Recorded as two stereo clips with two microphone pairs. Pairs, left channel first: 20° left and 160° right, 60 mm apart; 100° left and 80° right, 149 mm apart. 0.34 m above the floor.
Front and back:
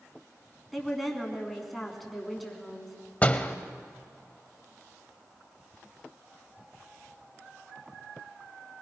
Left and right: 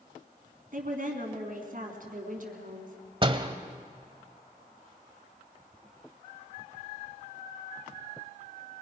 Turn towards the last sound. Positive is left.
turn(degrees=-40)